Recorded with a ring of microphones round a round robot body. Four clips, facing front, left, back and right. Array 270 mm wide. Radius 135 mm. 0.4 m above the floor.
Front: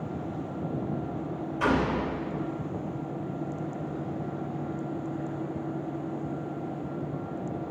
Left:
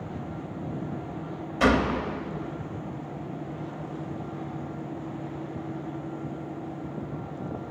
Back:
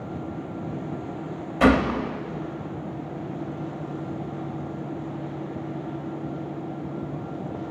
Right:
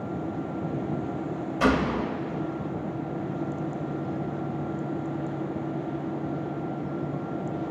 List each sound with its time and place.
1.6 s a gunshot: 170° left, 0.8 m